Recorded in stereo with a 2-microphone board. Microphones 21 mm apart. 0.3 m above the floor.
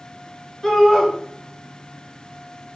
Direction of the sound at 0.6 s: 20° left (ahead or behind).